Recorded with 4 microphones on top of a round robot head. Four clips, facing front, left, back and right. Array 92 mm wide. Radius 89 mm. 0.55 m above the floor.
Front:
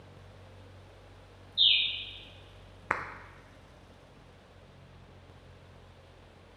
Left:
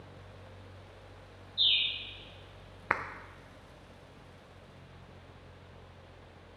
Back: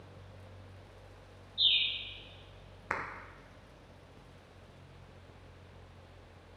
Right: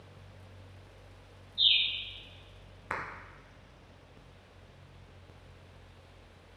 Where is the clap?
60° left, 0.6 m.